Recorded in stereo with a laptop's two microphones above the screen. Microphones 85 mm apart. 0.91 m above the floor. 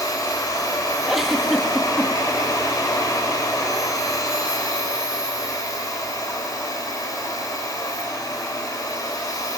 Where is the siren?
No siren in this recording.